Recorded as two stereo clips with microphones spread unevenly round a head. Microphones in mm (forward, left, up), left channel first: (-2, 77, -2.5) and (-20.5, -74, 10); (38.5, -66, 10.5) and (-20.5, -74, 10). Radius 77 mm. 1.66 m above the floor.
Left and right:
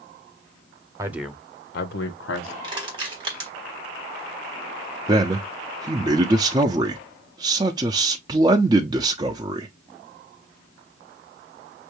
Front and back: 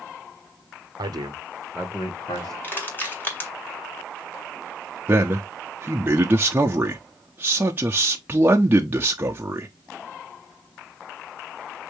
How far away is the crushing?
About 2 m.